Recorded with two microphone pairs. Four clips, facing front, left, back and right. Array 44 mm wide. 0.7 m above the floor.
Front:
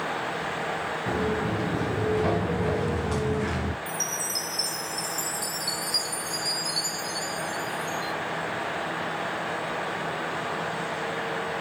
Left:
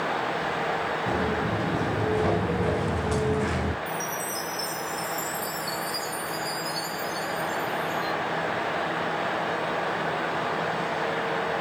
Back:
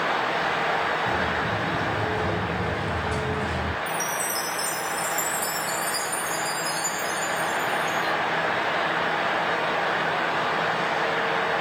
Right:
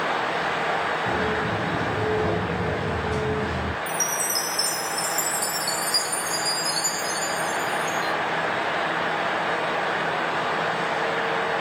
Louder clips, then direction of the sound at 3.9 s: Right 3 dB, back 5 dB; 65° right.